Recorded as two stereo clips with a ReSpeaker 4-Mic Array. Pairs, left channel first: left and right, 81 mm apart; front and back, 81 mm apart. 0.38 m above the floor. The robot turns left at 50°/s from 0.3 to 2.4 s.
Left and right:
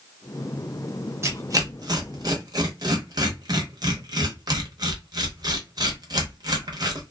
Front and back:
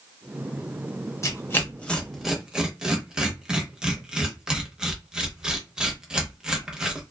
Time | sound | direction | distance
1.2 | tearing paper | 40° right | 0.8 m